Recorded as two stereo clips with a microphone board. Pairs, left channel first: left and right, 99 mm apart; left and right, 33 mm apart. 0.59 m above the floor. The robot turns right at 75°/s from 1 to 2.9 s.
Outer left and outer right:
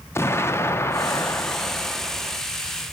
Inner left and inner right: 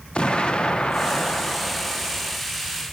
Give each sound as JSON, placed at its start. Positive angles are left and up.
{"t": 0.1, "sound": "an explosion", "side_deg": 25, "distance_m": 0.7}